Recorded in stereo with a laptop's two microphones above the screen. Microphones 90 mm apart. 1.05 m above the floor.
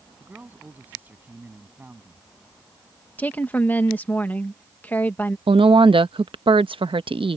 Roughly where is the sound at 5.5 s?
Right.